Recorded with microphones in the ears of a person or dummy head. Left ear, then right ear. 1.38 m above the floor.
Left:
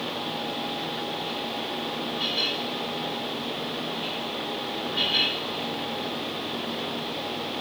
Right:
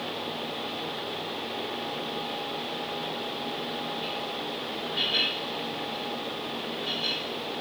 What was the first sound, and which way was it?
Only background noise.